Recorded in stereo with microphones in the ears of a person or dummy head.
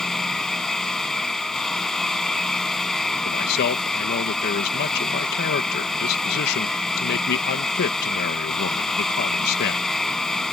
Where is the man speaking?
60° left (ahead or behind).